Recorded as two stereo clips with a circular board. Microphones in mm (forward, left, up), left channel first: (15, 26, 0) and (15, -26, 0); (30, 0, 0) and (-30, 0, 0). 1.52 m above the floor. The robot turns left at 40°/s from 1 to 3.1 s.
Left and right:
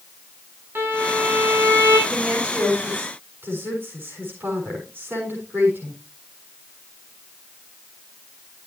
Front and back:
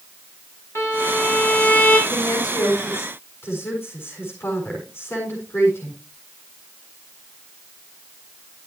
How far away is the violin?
About 6 m.